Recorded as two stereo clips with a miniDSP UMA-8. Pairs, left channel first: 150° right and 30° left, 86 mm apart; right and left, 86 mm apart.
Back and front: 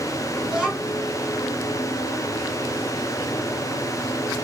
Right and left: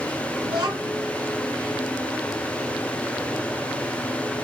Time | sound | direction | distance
0.5 | a child speaking | 110° left | 1.6 m